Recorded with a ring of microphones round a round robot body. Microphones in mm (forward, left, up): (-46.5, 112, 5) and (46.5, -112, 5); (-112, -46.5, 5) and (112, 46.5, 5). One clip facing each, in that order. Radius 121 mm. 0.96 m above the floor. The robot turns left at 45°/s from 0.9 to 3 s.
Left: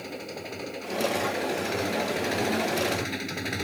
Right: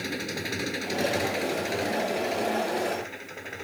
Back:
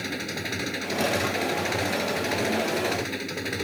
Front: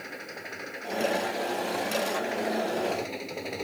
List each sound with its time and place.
0.0 s an engine running: 125° right; by 3.6 s 140° left